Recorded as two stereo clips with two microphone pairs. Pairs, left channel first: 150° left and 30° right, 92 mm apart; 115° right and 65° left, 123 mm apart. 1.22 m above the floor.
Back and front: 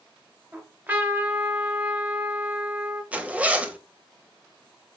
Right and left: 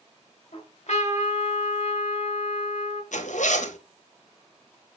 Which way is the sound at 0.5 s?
95° right.